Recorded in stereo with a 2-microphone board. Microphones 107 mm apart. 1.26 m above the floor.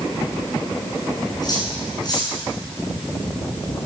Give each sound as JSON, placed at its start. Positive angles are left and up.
{"t": 1.4, "sound": "cutlery clinking", "side_deg": 40, "distance_m": 10.0}